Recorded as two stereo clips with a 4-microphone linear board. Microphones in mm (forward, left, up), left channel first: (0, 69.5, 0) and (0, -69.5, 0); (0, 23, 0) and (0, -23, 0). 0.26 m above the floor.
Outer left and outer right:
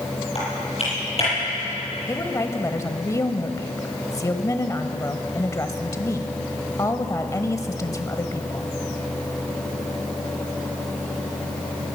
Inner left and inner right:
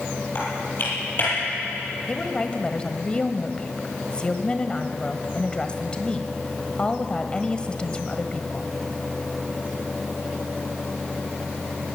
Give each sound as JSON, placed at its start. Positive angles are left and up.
{"t": 0.3, "sound": "typing on a keyboard", "side_deg": 45, "distance_m": 9.5}
{"t": 2.1, "sound": "a woman speaking", "side_deg": 20, "distance_m": 1.2}